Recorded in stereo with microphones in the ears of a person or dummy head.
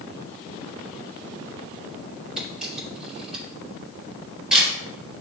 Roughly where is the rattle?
I don't hear a rattle.